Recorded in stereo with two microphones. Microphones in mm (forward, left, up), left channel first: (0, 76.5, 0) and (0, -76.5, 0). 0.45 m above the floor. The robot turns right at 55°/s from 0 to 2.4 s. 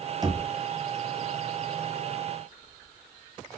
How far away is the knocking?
About 0.5 m.